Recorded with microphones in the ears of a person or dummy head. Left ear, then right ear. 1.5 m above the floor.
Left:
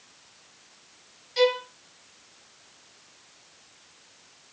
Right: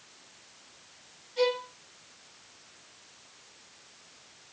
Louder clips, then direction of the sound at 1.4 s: Left 5 dB; 65° left (ahead or behind).